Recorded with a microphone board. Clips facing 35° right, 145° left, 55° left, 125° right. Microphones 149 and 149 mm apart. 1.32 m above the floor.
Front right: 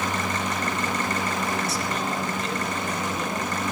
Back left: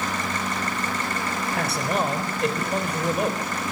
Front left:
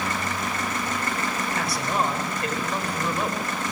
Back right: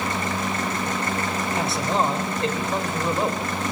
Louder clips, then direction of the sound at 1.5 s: Back left 3 dB, back right 4 dB; 170° left.